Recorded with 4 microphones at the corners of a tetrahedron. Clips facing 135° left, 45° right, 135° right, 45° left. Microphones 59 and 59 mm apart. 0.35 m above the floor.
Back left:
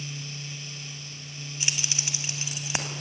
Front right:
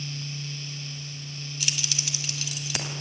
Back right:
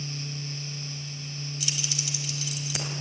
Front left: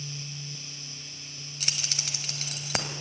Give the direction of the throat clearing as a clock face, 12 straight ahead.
No throat clearing in this recording.